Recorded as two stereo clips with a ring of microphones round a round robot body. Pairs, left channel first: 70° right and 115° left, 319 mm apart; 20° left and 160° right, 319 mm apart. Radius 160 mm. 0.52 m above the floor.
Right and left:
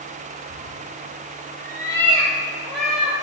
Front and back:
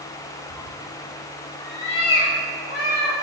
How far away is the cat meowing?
About 2 m.